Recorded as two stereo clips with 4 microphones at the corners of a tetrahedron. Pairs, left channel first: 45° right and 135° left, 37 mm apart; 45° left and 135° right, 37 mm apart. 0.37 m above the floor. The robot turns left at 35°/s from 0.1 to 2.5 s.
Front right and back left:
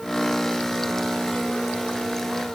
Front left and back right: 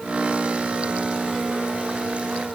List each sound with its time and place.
Only background noise.